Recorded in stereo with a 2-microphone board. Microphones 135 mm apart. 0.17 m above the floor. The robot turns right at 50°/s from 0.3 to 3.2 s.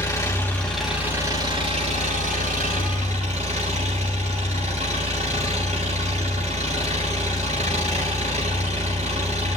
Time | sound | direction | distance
0.0 | an engine running | 155° left | 5.5 m